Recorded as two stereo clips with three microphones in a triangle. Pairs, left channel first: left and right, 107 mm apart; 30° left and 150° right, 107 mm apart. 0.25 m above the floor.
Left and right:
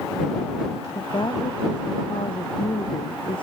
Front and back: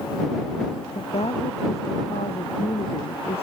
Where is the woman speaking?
45° left; by 3.4 s 55° left.